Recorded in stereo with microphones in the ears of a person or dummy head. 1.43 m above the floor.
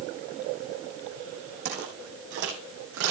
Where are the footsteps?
55° right (ahead or behind), 6 m; by 3.1 s 65° right (ahead or behind), 6.5 m.